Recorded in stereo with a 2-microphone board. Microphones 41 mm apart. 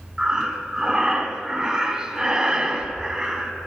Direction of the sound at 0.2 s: 20° right (ahead or behind).